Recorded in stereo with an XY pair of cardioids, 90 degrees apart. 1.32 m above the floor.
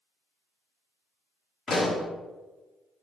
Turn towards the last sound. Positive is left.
turn(degrees=40)